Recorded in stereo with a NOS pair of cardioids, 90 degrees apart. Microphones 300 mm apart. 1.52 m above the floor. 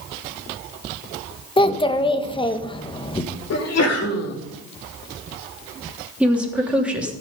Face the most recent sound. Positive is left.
turn(degrees=-5)